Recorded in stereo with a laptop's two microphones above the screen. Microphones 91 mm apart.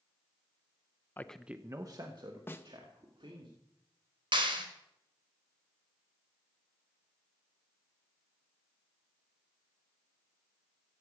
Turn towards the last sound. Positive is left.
turn(degrees=-65)  # may be behind; listen again after turning